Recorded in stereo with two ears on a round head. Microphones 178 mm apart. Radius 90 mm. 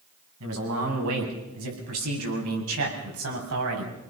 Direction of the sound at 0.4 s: 80° right.